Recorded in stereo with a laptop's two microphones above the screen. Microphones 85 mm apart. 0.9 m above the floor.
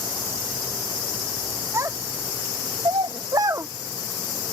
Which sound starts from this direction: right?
A child speaking, at 1.7 s.